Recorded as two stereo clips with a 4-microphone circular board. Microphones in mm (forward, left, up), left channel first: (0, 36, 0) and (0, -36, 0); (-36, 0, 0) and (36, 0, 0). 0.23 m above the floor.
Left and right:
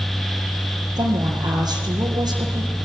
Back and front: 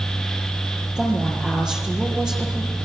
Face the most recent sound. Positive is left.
turn(degrees=-80)